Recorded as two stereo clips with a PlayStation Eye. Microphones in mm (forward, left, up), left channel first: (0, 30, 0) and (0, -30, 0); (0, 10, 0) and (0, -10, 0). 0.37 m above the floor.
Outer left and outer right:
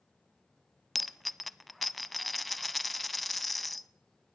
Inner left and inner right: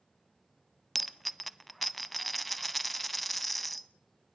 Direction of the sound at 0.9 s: Centre (ahead or behind).